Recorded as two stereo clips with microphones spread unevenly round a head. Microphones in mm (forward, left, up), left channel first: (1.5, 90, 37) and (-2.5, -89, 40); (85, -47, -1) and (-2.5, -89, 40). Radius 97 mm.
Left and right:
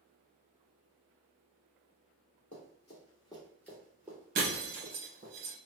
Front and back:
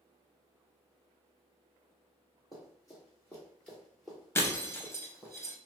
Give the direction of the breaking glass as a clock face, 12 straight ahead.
2 o'clock.